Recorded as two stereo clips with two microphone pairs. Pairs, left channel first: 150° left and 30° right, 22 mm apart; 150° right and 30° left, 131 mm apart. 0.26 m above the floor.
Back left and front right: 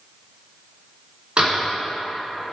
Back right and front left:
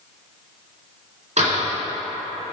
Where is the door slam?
10° left, 2.5 m.